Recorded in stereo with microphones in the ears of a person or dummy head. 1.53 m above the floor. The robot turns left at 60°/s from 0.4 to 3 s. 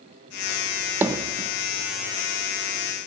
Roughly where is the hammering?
Centre.